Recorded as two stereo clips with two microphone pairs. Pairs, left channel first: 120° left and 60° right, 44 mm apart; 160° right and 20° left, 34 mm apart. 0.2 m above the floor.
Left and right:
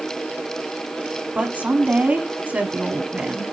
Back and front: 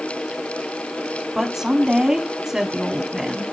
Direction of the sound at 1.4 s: 50° right.